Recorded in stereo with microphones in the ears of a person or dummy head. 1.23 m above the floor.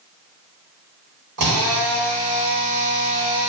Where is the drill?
60° right (ahead or behind), 1.5 m.